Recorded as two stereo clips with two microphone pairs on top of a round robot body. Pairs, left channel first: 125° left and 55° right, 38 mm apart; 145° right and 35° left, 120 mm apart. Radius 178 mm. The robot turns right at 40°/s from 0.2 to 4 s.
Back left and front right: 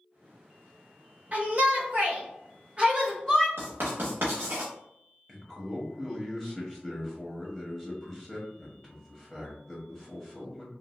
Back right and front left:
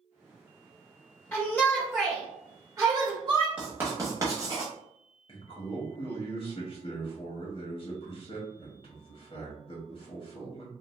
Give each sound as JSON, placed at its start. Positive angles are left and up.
{"t": 1.3, "sound": "a shout", "azimuth_deg": -65, "distance_m": 1.6}
{"t": 3.6, "sound": "writing", "azimuth_deg": -50, "distance_m": 0.7}
{"t": 5.3, "sound": "a man speaking", "azimuth_deg": -145, "distance_m": 1.2}